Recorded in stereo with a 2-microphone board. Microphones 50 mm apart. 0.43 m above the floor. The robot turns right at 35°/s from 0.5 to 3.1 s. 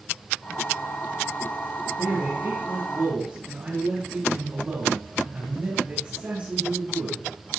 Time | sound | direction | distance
2.0 | a man speaking | 80° right | 3.5 m